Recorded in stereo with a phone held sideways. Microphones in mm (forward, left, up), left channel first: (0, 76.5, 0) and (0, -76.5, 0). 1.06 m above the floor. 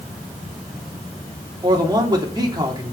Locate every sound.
1.6 s a man speaking: 30° right (ahead or behind), 3 m